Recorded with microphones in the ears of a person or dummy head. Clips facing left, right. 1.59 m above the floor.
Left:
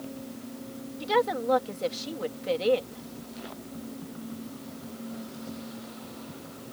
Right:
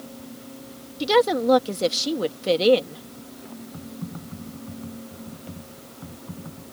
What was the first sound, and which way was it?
A woman speaking, 55° right (ahead or behind).